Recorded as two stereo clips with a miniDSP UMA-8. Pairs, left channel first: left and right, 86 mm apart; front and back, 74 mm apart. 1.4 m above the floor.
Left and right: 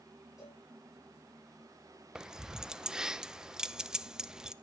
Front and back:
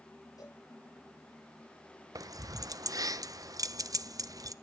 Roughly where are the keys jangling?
Behind.